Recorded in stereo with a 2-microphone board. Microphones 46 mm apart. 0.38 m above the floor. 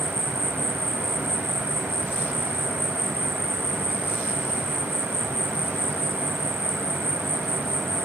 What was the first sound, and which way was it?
An insect, 10° left (ahead or behind).